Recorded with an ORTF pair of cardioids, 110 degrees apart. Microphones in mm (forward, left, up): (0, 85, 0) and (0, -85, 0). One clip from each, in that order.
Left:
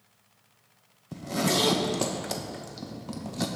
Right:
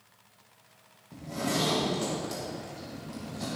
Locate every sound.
1.1 s a zipper: 60° left, 1.3 m